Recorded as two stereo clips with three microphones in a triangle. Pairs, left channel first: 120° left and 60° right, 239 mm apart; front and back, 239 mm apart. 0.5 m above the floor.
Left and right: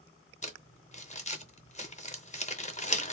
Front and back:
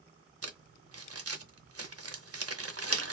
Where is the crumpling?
175° right, 0.5 m.